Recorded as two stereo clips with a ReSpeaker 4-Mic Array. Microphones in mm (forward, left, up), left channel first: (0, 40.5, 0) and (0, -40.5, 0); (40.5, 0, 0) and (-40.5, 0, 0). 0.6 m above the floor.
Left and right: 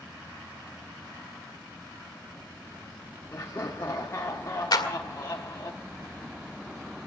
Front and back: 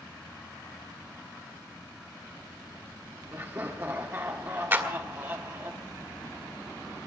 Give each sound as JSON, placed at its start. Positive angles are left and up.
{"t": 3.3, "sound": "laughter", "azimuth_deg": 135, "distance_m": 1.4}
{"t": 4.7, "sound": "a clap", "azimuth_deg": 120, "distance_m": 1.8}